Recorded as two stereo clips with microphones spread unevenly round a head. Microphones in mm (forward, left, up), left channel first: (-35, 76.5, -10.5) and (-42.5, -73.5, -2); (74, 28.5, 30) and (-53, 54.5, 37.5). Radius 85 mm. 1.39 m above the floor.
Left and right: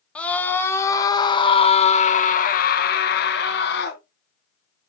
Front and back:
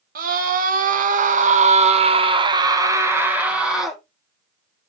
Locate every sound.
0.1 s a scream: 170° left, 2 m; by 4.0 s 80° left, 2 m